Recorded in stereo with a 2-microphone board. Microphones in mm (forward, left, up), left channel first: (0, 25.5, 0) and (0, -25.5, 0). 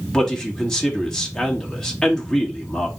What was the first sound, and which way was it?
A man speaking, 10° left (ahead or behind).